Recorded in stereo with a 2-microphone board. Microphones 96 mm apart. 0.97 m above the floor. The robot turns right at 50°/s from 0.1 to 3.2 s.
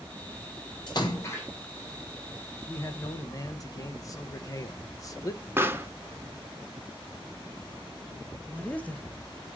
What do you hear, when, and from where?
0.9 s a splash: 125° left, 2 m; by 1.5 s 160° left, 2 m
2.7 s a man speaking: 25° left (ahead or behind), 0.7 m; by 5.5 s 35° left (ahead or behind), 0.7 m
5.6 s a pop: 25° right (ahead or behind), 0.6 m
8.5 s a woman speaking: 15° left (ahead or behind), 0.6 m